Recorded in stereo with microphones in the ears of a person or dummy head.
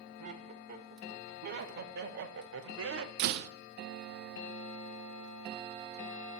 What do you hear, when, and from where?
0.2 s laughter: 45° right (ahead or behind), 2.5 m; by 3.1 s 70° right (ahead or behind), 1.4 m
3.2 s a door slam: 60° right (ahead or behind), 0.9 m